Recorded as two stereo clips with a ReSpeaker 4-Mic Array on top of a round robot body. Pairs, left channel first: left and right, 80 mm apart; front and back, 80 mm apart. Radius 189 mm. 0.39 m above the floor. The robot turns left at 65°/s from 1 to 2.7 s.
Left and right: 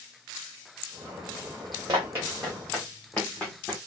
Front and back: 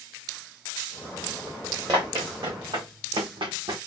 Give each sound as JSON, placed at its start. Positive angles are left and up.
{"t": 1.9, "sound": "running footsteps", "azimuth_deg": -140, "distance_m": 2.5}